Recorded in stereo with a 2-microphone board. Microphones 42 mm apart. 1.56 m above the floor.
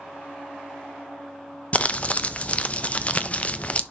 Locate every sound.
1.7 s crumpling: 35° left (ahead or behind), 0.5 m